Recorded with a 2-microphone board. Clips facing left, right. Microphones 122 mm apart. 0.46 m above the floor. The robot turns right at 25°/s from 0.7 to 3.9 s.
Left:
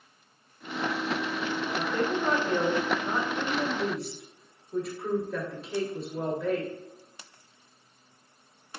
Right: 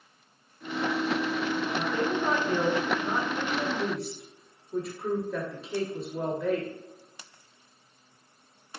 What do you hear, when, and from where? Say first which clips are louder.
1.8 s a woman speaking: left 2 dB; 20° right (ahead or behind), 1.3 m; by 6.7 s 5° right (ahead or behind), 1.3 m